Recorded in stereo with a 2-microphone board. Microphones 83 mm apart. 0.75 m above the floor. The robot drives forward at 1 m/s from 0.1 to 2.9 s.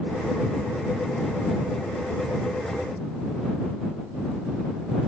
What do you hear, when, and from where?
Only background noise.